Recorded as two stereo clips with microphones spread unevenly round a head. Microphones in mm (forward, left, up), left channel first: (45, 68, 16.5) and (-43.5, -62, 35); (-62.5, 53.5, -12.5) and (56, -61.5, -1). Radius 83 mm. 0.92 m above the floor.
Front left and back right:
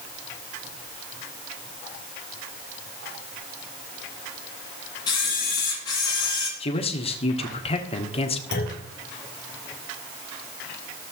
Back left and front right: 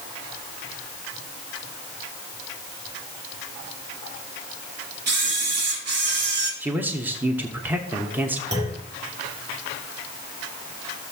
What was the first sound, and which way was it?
A camera shutter, 10° right.